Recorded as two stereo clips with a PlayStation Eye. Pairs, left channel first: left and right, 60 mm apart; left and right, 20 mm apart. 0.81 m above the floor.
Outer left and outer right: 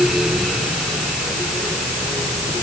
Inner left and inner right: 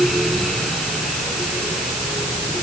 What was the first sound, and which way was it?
Only background noise.